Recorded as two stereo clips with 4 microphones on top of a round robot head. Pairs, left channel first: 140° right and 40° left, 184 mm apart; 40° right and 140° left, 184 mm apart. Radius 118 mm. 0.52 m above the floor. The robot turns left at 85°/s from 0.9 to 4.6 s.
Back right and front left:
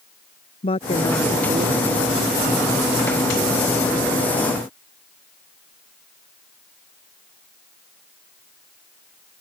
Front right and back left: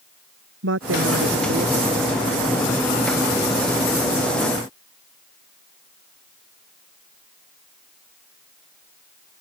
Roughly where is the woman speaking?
Behind left.